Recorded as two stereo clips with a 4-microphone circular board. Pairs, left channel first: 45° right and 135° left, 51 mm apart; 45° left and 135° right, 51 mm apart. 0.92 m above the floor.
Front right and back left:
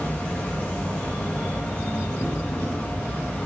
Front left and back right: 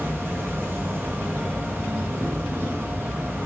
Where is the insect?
105° right, 0.8 m.